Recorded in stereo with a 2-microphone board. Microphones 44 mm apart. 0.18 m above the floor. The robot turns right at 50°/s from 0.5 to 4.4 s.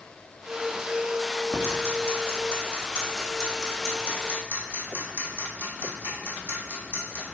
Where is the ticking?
80° left, 3 m; by 7.3 s 45° right (ahead or behind), 3 m.